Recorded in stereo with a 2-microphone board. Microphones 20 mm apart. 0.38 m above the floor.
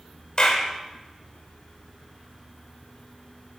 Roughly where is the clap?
Left.